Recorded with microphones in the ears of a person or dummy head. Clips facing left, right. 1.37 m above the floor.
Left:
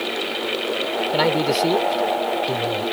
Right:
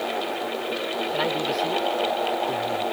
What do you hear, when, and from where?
1.1 s a man speaking: 60° left (ahead or behind)